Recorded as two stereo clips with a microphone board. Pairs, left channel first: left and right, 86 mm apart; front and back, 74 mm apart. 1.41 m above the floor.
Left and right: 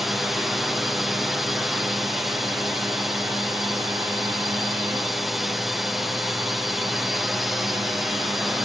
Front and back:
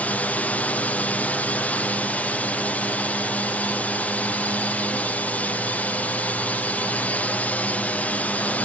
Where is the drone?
5° right.